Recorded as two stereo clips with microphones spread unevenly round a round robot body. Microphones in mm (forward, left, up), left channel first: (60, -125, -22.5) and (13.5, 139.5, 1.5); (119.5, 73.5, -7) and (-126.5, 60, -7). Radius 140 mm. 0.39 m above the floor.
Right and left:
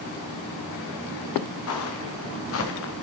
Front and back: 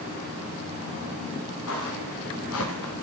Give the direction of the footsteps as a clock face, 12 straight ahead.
1 o'clock.